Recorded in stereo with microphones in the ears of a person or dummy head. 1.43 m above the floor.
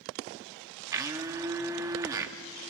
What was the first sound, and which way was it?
A blender, 20° right (ahead or behind).